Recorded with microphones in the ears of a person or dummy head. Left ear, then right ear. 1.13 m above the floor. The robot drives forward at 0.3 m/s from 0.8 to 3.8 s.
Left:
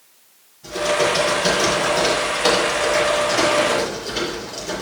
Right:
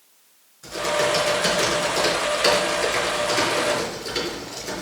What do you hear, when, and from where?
0.6 s typing on a keyboard: 60° right (ahead or behind), 4.5 m; by 4.8 s 50° right (ahead or behind), 5 m